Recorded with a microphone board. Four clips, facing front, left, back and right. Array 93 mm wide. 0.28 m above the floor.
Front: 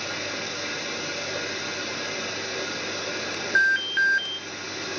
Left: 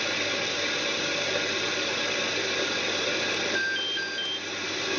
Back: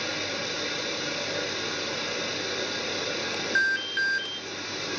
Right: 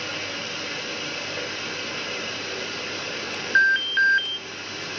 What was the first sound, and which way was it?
Running water, 85° left.